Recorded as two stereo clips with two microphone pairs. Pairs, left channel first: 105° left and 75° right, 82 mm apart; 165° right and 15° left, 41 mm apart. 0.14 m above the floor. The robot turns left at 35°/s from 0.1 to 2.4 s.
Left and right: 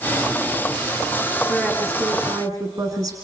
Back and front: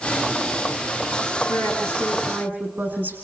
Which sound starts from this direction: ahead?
A woman speaking, at 1.5 s.